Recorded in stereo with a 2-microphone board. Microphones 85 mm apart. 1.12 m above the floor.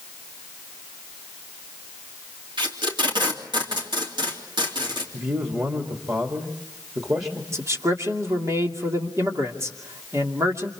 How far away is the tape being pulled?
About 3 m.